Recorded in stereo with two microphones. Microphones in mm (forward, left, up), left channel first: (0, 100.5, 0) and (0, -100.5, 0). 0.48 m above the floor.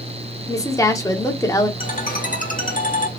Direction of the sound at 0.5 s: 15° left (ahead or behind).